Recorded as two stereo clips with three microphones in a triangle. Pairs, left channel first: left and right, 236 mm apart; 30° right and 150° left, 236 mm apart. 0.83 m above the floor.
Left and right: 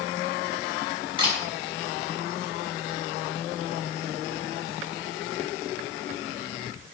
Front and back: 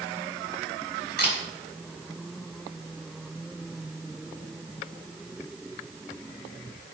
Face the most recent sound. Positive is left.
turn(degrees=-20)